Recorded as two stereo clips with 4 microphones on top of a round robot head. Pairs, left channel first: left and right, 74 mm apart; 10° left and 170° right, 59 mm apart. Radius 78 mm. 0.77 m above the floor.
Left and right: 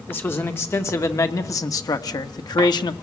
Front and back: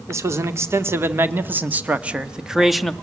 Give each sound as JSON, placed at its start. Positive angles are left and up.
{"t": 0.1, "sound": "a man speaking", "azimuth_deg": 155, "distance_m": 2.0}